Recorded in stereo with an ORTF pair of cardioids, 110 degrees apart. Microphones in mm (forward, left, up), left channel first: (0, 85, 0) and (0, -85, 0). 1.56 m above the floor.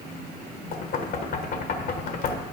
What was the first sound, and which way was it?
Knocking, 60° left.